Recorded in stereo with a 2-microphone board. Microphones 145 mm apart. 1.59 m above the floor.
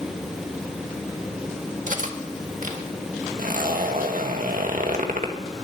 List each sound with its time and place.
1.9 s cutlery clinking: 65° right (ahead or behind), 1.6 m
3.4 s a zipper: 70° right (ahead or behind), 1.6 m